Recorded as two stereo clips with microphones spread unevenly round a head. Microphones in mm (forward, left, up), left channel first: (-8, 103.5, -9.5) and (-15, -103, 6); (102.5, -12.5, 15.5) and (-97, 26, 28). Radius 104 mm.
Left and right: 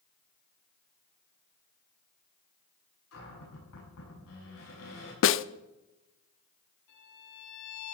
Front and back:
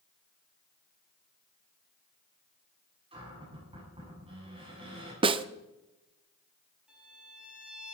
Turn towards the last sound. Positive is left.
turn(degrees=85)